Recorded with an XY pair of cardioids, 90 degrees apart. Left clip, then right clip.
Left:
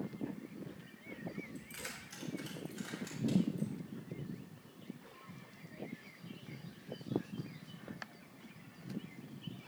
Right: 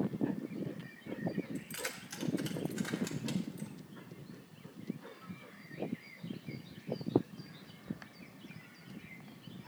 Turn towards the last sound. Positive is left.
turn(degrees=-75)